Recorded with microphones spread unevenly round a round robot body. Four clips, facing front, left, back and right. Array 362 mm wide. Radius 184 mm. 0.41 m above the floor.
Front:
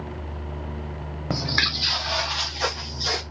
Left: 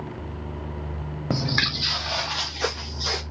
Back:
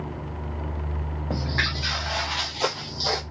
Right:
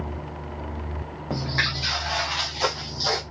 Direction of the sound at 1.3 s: 55° left.